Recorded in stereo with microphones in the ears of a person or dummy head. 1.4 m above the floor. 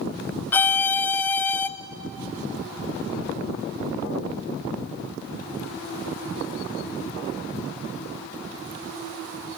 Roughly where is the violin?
Centre.